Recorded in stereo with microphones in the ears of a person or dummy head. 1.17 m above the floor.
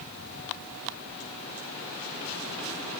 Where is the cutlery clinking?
I don't hear cutlery clinking.